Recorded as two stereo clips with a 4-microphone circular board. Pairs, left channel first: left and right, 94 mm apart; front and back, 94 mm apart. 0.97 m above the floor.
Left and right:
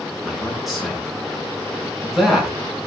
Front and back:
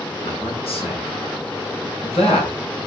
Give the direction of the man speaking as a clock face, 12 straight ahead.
12 o'clock.